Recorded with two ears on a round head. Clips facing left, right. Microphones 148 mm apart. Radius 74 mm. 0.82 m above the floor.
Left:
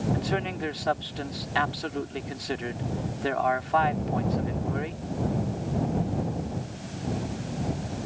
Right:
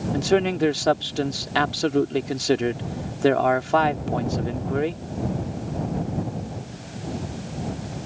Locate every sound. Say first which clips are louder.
0.1 s a man speaking: right 9 dB; 55° right (ahead or behind)